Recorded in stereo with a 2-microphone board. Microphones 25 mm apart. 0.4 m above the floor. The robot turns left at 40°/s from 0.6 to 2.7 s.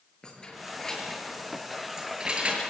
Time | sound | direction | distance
0.2 | keys jangling | 35° left (ahead or behind) | 5.5 m